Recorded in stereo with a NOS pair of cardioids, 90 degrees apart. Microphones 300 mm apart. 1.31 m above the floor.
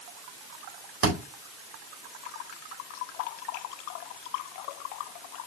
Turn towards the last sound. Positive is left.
turn(degrees=-55)